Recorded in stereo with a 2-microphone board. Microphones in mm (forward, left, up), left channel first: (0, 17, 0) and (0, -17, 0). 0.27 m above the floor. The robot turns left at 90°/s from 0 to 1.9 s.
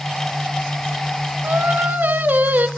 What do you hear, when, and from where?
1.4 s singing: 70° right, 0.6 m; by 2.7 s 115° right, 0.6 m